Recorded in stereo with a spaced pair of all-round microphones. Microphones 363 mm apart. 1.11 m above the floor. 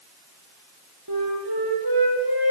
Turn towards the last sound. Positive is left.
turn(degrees=-85)